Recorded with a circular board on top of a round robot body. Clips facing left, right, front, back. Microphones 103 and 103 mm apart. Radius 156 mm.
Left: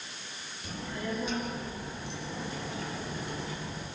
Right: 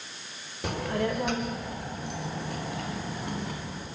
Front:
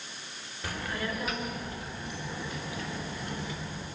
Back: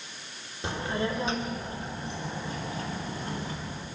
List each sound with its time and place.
0.6 s a child speaking: 110° right, 1.8 m; by 3.9 s 125° right, 4.5 m